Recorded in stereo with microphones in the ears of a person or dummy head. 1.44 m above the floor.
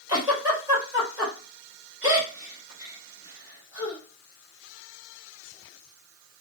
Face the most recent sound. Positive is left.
turn(degrees=-15)  # may be behind; listen again after turning